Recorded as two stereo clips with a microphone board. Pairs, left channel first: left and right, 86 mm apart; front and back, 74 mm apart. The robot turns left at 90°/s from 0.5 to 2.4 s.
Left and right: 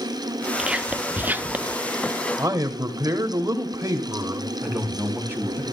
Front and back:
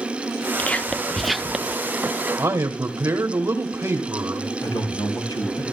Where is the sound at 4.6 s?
25° right, 3.5 m.